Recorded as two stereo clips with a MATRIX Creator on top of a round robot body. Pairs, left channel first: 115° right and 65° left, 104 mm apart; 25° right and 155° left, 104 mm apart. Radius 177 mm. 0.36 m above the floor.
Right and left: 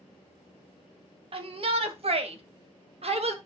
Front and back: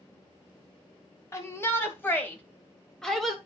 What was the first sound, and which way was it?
A shout, 40° left.